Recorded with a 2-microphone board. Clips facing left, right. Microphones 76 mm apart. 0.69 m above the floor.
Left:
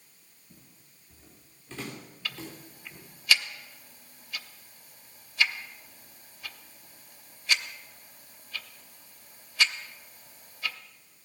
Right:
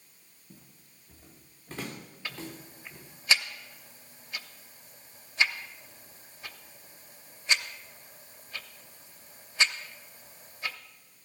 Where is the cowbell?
I don't hear a cowbell.